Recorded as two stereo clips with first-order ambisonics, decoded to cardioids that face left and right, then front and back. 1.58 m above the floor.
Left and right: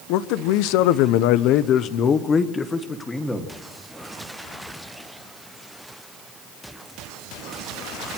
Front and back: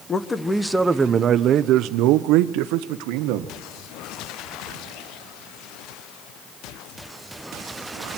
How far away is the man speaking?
About 1.0 m.